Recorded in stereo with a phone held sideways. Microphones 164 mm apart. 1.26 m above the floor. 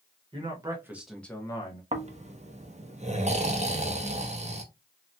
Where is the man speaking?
35° right (ahead or behind), 1.1 m; by 1.8 s 35° left (ahead or behind), 0.9 m.